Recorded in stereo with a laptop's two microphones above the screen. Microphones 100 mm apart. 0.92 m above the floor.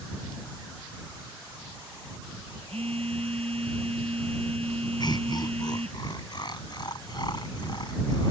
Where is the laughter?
45° left (ahead or behind).